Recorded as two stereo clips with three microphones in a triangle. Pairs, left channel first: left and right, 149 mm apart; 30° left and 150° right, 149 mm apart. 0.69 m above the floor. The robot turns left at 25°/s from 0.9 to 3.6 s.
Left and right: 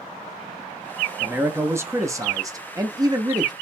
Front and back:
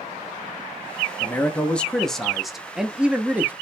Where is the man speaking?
30° right, 0.6 m; by 3.5 s 90° right, 0.6 m.